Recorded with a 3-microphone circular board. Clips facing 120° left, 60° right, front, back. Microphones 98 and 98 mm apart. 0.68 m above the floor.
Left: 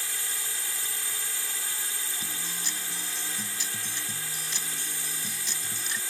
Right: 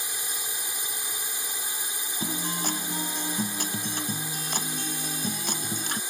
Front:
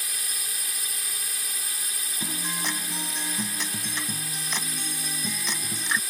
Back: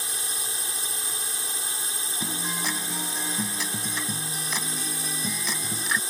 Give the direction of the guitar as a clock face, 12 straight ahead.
3 o'clock.